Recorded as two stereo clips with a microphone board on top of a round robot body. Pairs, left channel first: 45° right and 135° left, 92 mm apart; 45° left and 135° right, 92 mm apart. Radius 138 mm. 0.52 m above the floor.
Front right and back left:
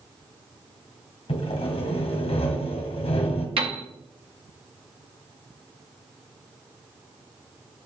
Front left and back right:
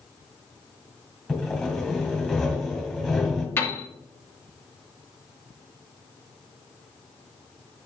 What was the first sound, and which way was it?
Sawing, 45° right.